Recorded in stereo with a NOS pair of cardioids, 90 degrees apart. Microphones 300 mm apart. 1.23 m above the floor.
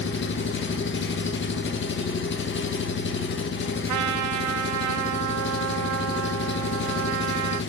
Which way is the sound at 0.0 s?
40° left.